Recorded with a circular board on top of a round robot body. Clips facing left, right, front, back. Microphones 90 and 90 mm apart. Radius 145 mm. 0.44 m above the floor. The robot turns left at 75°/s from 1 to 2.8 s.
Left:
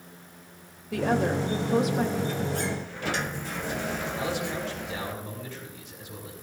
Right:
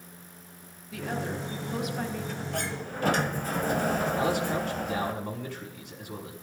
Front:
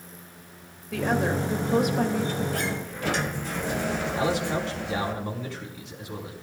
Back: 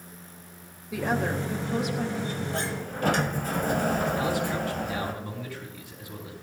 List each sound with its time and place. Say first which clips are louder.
0.9 s a woman speaking: left 8 dB, front 2 dB; 100° left, 3 m; by 2.4 s 5° right, 3 m
2.5 s a sliding door: left 2 dB, front 1 dB; 115° right, 1.2 m; by 5.1 s 135° right, 1.2 m
4.1 s a man speaking: right 3 dB, front 1 dB; 60° right, 5.5 m